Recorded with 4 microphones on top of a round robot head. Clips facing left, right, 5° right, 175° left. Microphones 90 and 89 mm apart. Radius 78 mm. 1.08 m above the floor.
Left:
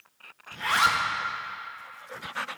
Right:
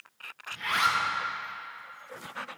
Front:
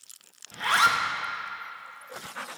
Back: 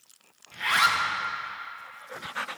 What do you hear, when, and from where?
0.5 s a zipper: 45° left, 0.8 m